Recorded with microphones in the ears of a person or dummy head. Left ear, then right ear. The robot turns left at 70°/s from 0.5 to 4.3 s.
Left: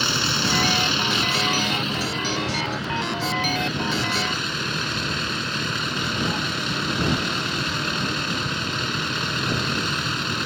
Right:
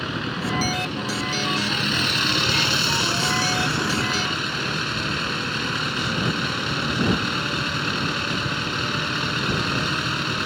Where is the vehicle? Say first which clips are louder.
Left 7 dB; 90° left; by 10.5 s 175° right.